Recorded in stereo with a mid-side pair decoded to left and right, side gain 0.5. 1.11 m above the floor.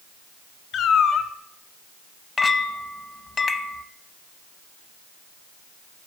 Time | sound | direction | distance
0.7 | a cat meowing | 65° left | 1.2 m
2.4 | a clink | 35° left | 0.8 m